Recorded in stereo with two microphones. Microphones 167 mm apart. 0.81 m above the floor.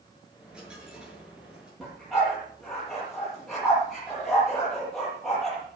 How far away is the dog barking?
About 9.5 m.